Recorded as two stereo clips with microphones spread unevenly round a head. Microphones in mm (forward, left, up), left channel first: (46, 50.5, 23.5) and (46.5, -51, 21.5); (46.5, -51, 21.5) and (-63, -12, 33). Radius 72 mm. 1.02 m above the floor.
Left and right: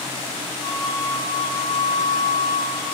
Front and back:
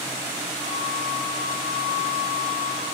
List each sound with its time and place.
0.6 s a flute: 40° left, 5 m